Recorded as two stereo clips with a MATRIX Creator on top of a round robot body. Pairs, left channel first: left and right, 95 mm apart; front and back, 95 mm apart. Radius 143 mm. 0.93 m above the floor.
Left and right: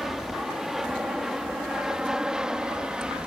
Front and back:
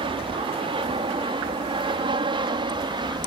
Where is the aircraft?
175° right; by 3.3 s 170° right.